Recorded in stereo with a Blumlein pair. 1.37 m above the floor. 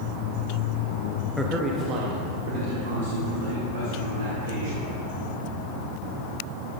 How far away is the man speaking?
About 1.0 m.